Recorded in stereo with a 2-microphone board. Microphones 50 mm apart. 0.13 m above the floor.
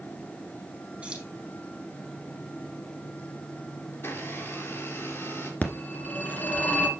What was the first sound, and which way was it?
Keys jangling, 20° right (ahead or behind).